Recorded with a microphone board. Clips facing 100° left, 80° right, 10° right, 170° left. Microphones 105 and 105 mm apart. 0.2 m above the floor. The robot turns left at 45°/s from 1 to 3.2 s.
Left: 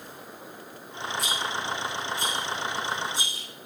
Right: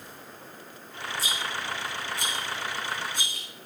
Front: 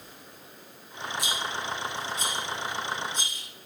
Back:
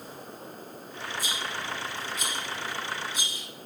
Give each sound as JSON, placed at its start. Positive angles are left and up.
{"t": 1.2, "sound": "a rattle", "azimuth_deg": -20, "distance_m": 4.0}